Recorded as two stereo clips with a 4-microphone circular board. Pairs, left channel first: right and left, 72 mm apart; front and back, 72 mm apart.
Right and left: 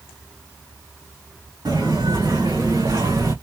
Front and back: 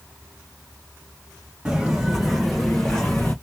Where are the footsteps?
100° left, 2.5 m; by 3.3 s 65° left, 2 m.